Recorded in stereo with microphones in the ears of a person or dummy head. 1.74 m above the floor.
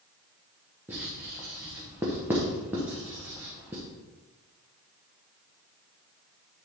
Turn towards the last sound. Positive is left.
turn(degrees=-5)  # may be behind; listen again after turning